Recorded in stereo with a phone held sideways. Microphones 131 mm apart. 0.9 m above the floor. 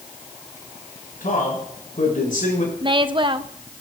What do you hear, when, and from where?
1.2 s a man speaking: 80° left, 6 m
2.8 s a woman speaking: 35° right (ahead or behind), 0.7 m